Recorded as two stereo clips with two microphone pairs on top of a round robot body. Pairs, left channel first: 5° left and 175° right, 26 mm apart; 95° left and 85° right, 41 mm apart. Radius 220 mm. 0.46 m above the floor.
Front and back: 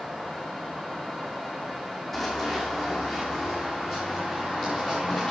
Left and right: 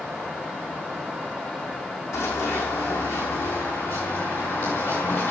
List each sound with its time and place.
2.1 s running footsteps: 85° left, 2.5 m; by 5.3 s 95° left, 4.5 m